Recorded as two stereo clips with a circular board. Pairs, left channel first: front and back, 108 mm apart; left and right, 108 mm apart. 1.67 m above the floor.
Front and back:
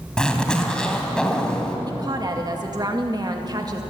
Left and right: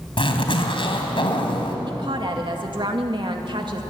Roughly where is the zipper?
Left.